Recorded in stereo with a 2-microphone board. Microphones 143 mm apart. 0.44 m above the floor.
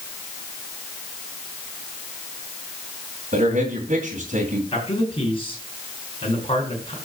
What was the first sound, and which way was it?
A man speaking, 55° right (ahead or behind).